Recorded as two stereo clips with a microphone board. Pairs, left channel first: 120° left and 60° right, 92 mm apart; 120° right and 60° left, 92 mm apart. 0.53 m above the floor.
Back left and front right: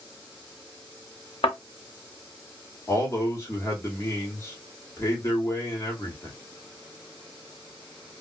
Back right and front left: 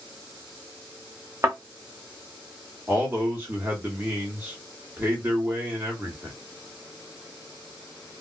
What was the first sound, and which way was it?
A thud, 115° left.